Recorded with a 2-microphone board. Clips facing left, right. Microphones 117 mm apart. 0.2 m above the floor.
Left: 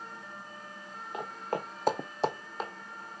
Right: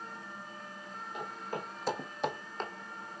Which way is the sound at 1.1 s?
80° left.